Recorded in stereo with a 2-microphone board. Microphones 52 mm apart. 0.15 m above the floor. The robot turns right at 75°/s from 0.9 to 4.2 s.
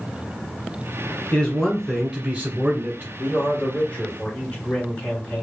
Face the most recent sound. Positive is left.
turn(degrees=155)